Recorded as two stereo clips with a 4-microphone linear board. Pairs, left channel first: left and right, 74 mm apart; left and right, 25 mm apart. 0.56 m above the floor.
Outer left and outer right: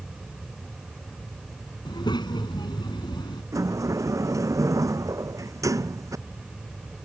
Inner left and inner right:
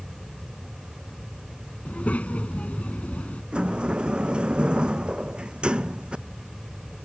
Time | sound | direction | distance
1.9 | a child speaking | 80° left | ?
3.5 | a sliding door | 45° right (ahead or behind) | ?